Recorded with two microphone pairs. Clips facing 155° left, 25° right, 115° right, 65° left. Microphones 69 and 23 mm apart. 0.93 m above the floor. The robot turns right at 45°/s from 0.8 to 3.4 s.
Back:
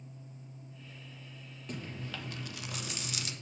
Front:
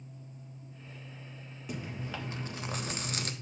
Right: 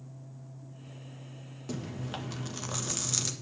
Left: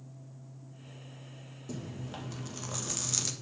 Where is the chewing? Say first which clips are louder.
Front 2 dB, right 4 dB; 105° right, 1.2 m; by 3.3 s 30° right, 1.2 m.